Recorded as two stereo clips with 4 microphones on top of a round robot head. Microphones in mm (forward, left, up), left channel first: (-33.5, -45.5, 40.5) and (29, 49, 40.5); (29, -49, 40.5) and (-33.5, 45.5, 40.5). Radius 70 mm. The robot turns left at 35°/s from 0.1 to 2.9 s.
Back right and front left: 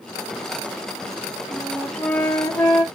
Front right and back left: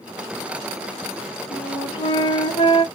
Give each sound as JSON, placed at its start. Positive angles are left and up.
{"t": 1.5, "sound": "a flute", "azimuth_deg": -35, "distance_m": 1.3}